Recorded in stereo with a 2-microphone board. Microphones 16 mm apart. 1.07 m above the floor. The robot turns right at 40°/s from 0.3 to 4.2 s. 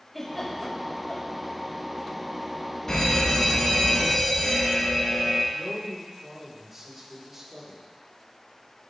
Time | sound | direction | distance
0.1 | a giggle | 5° left (ahead or behind) | 5.5 m
2.9 | a fire alarm | 55° left | 2.5 m
5.5 | a man speaking | 10° right (ahead or behind) | 4 m